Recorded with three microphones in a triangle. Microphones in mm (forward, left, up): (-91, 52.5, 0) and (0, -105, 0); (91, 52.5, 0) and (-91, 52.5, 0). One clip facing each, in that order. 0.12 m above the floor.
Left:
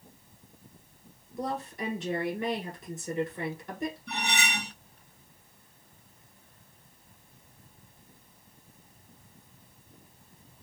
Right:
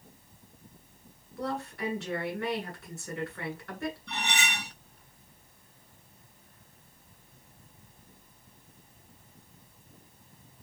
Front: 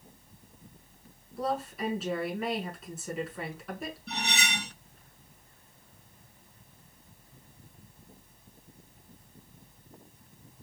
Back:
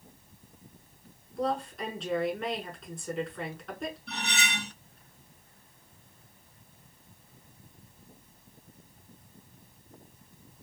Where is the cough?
I don't hear a cough.